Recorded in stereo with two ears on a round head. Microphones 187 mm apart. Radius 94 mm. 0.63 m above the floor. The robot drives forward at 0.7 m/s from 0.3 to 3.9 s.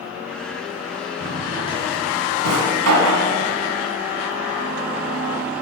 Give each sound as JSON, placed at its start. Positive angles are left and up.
{"t": 1.2, "sound": "a drawer", "side_deg": -60, "distance_m": 2.5}